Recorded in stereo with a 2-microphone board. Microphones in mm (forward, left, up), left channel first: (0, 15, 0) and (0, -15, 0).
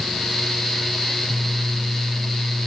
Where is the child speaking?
I don't hear a child speaking.